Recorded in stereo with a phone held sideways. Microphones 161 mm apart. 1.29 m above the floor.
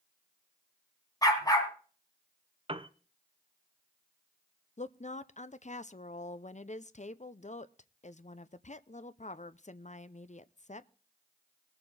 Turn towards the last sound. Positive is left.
turn(degrees=50)  # may be behind; listen again after turning